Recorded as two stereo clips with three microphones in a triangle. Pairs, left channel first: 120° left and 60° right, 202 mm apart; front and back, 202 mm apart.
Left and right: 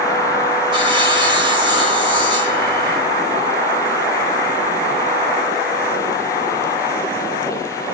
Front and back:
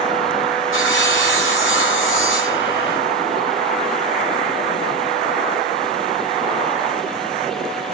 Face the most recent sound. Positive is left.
turn(degrees=5)